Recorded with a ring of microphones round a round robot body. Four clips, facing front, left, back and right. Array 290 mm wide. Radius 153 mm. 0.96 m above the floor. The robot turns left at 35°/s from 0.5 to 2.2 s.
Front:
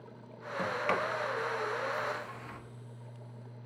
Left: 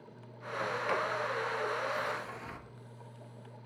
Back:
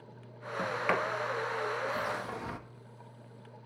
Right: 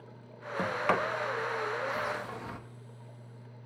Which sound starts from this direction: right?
A sliding door, at 0.6 s.